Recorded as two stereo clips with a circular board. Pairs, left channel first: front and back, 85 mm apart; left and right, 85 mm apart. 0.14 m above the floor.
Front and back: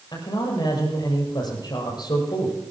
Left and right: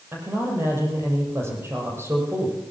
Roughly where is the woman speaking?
Ahead right.